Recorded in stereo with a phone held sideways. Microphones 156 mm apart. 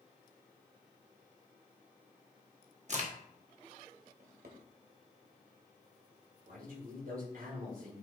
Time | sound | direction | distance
2.9 | a crack | 50° right (ahead or behind) | 1.3 m
4.2 | a drawer | 70° right (ahead or behind) | 1.4 m
6.5 | a man speaking | 80° right | 4 m